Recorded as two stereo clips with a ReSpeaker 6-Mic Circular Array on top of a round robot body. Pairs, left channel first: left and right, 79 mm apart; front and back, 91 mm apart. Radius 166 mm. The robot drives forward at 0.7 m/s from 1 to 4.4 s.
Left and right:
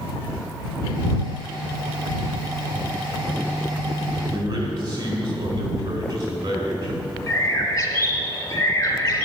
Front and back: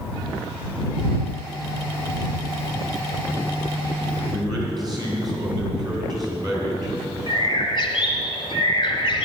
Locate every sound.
4.3 s a man speaking: 135° right, 4 m
7.3 s a bird: 45° left, 2.5 m